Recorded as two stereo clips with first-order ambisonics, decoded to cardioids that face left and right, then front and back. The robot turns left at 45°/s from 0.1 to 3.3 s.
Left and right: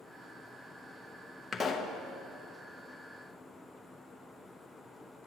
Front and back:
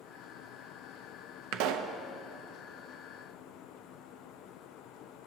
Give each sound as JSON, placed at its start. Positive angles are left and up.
{"t": 1.5, "sound": "a pop", "azimuth_deg": 175, "distance_m": 0.8}